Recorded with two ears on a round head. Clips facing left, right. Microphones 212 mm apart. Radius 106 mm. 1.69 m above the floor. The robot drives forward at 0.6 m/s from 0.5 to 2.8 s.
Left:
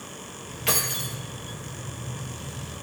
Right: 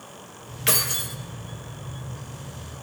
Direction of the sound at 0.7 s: 25° right (ahead or behind).